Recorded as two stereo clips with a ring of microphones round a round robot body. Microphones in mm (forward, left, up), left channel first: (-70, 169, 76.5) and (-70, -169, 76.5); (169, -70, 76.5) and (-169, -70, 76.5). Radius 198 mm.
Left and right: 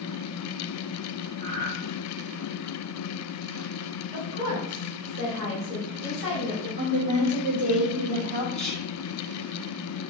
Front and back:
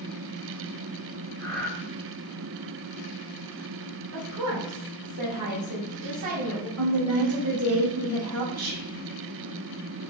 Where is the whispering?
Straight behind, 2 m.